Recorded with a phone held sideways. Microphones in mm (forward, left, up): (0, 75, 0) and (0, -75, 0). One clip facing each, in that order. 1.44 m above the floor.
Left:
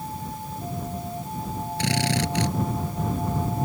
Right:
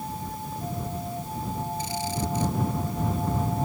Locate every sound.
1.8 s a drill: 70° left (ahead or behind)